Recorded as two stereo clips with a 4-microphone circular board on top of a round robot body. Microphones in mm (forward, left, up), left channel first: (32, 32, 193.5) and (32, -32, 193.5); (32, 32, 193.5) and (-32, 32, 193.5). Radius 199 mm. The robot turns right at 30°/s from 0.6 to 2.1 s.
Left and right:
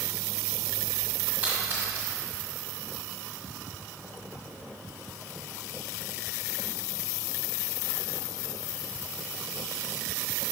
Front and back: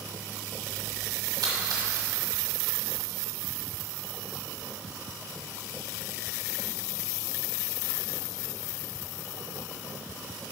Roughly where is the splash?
Behind.